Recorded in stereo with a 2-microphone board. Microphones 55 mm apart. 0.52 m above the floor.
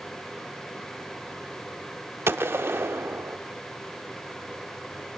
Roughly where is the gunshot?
Right.